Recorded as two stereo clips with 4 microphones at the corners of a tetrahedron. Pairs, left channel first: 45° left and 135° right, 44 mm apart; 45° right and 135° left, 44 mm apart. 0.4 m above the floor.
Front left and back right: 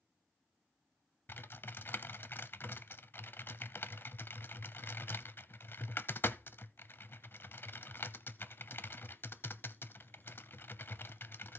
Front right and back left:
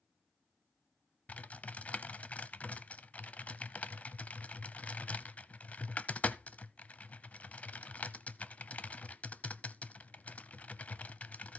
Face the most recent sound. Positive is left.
turn(degrees=10)